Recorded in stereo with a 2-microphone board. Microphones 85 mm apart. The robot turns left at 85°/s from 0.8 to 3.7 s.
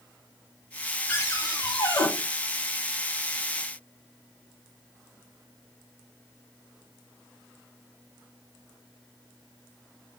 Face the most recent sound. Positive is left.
turn(degrees=-75)